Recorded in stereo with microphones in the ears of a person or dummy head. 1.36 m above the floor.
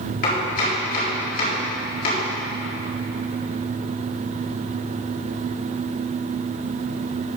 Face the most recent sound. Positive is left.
turn(degrees=55)  # may be behind; listen again after turning